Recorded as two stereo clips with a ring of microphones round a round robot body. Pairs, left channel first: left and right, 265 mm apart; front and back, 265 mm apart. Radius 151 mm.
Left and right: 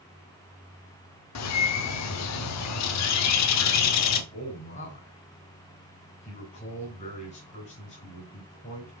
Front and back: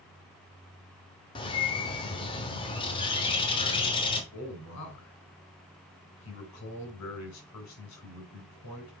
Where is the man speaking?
25° left, 3 m.